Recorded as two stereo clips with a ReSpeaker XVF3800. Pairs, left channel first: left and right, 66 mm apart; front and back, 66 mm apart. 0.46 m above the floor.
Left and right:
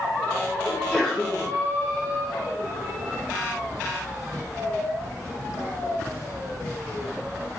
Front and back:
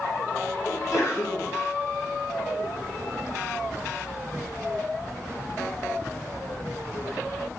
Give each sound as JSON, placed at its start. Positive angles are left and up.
{"t": 0.7, "sound": "a sneeze", "azimuth_deg": 15, "distance_m": 1.5}